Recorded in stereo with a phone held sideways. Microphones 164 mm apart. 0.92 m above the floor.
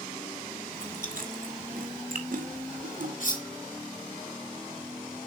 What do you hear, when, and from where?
0.7 s chewing: 60° right (ahead or behind), 2.5 m
3.2 s cutlery clinking: 60° left (ahead or behind), 1.8 m